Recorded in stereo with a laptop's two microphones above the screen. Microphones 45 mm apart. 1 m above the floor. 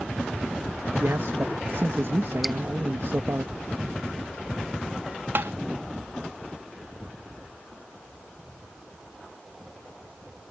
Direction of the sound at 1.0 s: 60° right (ahead or behind).